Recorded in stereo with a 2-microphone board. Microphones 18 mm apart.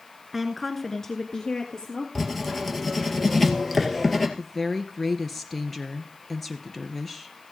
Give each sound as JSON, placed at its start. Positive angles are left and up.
{"t": 0.3, "sound": "a woman speaking", "side_deg": -10, "distance_m": 1.4}
{"t": 2.1, "sound": "writing", "side_deg": 15, "distance_m": 2.0}
{"t": 4.4, "sound": "a woman speaking", "side_deg": 10, "distance_m": 1.3}